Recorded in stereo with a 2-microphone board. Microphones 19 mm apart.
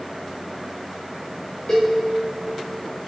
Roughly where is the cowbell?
Left.